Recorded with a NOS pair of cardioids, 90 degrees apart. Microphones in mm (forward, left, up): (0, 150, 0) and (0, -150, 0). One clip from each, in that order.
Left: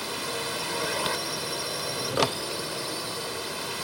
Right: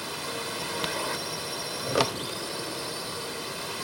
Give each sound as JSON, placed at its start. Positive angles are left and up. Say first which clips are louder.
{"t": 0.0, "sound": "a drone", "louder": "left 2 dB", "azimuth_deg": 20}